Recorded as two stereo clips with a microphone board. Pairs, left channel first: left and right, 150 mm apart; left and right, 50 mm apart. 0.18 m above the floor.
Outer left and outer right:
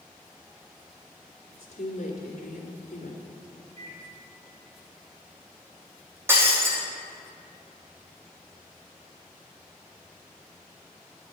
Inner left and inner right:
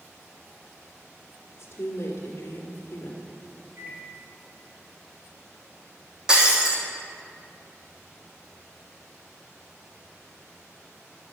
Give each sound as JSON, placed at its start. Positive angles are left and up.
{"t": 1.5, "sound": "a woman speaking", "side_deg": 50, "distance_m": 2.5}
{"t": 3.8, "sound": "a microwave", "side_deg": -35, "distance_m": 3.0}
{"t": 6.3, "sound": "breaking glass", "side_deg": -15, "distance_m": 2.5}